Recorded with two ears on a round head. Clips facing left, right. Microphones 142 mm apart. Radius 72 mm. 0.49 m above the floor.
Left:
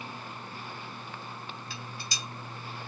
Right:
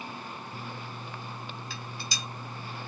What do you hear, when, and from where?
1.7 s dishes clattering: 75° right (ahead or behind), 2 m